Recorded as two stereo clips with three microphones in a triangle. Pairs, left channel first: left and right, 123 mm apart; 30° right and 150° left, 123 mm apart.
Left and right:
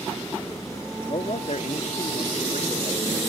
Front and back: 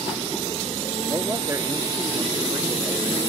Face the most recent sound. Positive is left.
turn(degrees=90)